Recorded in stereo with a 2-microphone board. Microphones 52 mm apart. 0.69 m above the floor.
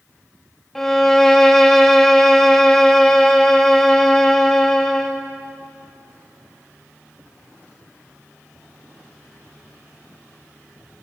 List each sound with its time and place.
0.8 s a violin: 5° left (ahead or behind), 0.8 m